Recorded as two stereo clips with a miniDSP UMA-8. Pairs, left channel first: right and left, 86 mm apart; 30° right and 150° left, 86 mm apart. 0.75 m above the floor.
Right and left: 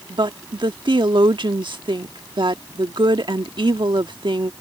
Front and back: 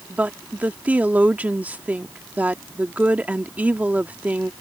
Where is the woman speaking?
80° left.